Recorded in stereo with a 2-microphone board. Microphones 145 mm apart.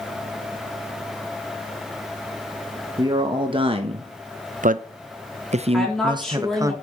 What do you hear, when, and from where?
3.0 s a man speaking: 30° right (ahead or behind), 1.2 m; by 6.7 s 25° right (ahead or behind), 1.0 m
5.7 s a woman speaking: 5° left (ahead or behind), 3 m